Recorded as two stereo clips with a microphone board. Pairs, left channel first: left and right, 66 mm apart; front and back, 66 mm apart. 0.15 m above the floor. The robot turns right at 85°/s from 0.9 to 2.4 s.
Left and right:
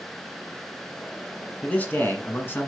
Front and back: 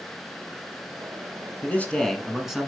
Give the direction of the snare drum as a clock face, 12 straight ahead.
I don't hear a snare drum.